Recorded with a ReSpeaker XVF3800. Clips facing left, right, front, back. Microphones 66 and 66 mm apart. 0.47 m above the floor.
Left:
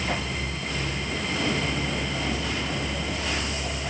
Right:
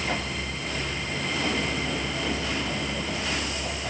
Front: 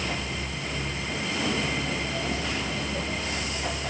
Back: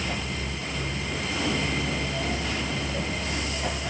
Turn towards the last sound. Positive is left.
No sound to turn to.